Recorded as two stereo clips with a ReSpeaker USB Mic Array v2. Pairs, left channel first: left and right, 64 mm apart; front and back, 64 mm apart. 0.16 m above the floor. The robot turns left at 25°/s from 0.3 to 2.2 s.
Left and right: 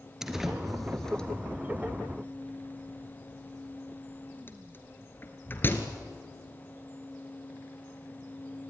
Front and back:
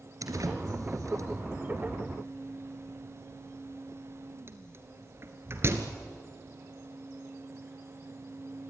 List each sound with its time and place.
0.2 s a door slam: 170° right, 2 m; by 5.9 s 140° left, 2 m